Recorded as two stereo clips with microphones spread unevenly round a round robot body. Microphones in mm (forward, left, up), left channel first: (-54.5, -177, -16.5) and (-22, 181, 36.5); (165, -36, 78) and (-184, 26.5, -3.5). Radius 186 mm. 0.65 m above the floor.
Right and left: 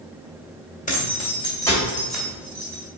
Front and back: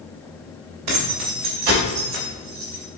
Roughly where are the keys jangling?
Behind.